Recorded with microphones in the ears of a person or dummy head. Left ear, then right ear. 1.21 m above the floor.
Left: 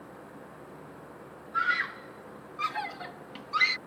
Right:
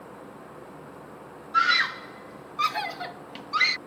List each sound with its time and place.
1.5 s a scream: 30° right (ahead or behind); by 3.8 s 5° right (ahead or behind)